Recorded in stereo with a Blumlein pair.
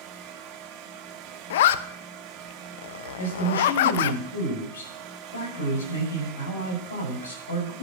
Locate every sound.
0.0 s a fan: 35° right, 1.8 m
1.5 s a zipper: 55° left, 0.7 m
3.2 s a man speaking: 70° left, 7.5 m